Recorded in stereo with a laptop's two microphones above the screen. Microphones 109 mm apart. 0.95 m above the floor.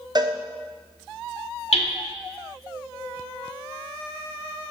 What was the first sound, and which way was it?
A cowbell, 40° right (ahead or behind).